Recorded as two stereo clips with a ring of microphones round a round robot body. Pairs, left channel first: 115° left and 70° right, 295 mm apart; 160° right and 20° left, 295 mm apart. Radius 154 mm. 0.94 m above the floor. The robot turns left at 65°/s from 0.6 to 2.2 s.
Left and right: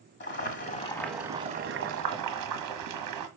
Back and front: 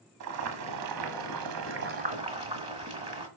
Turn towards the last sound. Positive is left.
turn(degrees=-45)